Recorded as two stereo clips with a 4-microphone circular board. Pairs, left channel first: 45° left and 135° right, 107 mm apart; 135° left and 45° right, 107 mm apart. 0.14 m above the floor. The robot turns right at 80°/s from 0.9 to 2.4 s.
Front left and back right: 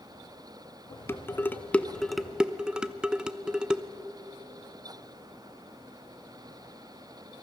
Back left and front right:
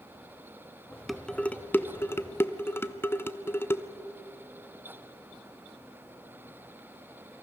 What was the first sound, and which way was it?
Dishes clattering, 50° left.